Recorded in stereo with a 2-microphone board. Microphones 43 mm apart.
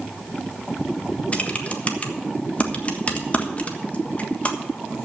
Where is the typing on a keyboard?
35° left (ahead or behind), 1.4 m.